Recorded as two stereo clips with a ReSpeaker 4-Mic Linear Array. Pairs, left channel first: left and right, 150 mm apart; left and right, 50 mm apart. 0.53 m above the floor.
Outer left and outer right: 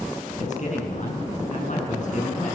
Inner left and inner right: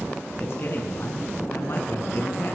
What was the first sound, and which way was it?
A man speaking, 55° left (ahead or behind).